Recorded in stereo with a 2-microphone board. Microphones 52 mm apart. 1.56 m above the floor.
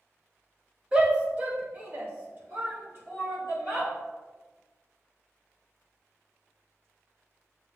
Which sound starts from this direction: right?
A shout, at 0.9 s.